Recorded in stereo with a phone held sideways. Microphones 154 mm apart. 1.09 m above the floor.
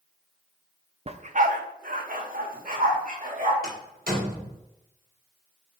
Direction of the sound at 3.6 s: 70° right (ahead or behind).